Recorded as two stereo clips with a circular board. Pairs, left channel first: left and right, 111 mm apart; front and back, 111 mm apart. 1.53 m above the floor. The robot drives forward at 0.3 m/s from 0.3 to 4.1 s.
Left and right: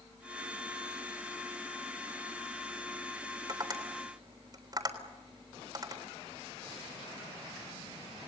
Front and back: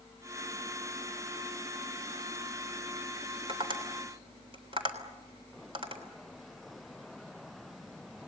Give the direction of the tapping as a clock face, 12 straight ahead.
5 o'clock.